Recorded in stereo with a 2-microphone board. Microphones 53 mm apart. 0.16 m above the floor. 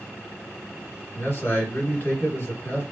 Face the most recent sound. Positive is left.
turn(degrees=45)  # may be behind; listen again after turning